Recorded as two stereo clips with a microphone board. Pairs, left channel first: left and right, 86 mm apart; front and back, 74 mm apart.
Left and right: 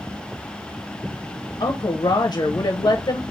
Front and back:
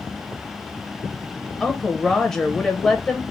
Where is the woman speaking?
80° left, 0.6 m.